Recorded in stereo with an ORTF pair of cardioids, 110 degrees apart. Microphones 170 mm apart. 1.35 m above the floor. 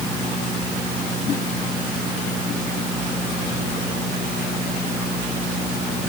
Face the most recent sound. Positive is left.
No sound to turn to.